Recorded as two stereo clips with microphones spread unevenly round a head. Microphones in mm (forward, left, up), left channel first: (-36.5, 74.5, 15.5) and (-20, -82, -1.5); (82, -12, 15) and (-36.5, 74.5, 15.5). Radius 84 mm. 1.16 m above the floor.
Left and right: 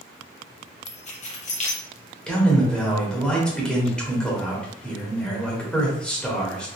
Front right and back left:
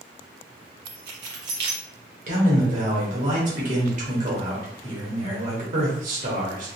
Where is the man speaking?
175° right, 1.5 m.